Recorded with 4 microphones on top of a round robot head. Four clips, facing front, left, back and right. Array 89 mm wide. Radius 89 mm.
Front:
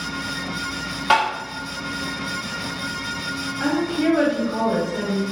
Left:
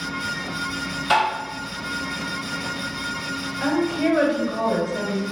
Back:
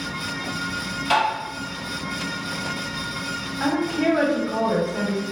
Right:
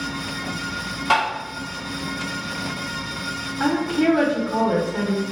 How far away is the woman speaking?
About 1.2 m.